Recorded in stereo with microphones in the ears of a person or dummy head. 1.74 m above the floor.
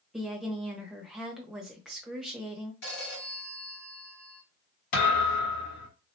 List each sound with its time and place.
0.1 s a woman speaking: centre (ahead or behind), 1.0 m
2.8 s a phone ringing: 65° left (ahead or behind), 2.5 m
4.9 s a thud: 65° left (ahead or behind), 2 m